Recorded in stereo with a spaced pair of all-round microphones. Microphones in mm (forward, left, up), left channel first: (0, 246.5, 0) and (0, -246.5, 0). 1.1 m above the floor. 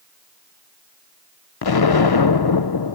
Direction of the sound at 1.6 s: 50° left (ahead or behind).